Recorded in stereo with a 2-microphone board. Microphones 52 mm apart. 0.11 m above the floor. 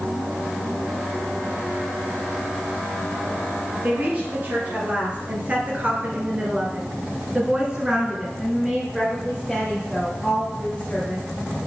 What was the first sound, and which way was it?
A woman speaking, 35° right (ahead or behind).